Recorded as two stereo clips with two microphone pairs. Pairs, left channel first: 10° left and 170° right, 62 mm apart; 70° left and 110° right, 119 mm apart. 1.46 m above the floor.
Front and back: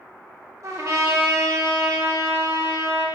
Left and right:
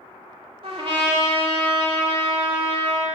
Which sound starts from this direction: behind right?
A trumpet, at 0.6 s.